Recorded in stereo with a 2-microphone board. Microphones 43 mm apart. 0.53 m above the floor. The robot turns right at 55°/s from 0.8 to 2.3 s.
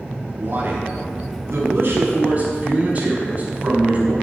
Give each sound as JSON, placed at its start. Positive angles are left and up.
{"t": 0.4, "sound": "a man speaking", "azimuth_deg": -120, "distance_m": 5.0}